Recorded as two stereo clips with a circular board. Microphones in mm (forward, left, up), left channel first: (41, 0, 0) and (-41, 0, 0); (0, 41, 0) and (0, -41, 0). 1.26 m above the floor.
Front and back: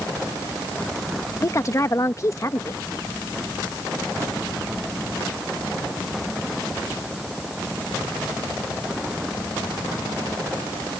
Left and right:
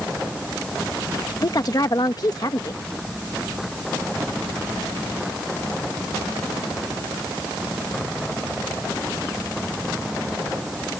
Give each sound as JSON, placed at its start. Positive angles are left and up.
{"t": 1.4, "sound": "a woman speaking", "azimuth_deg": 50}